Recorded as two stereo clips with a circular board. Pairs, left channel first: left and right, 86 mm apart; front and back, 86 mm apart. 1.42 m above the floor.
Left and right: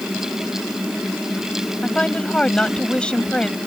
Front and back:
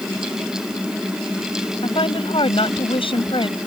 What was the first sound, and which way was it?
A woman speaking, 10° left.